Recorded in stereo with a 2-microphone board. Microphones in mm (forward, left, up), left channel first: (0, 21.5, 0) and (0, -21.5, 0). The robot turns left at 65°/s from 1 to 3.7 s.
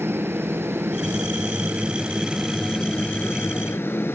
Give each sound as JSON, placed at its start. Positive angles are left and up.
{"t": 0.0, "sound": "a helicopter", "side_deg": -70}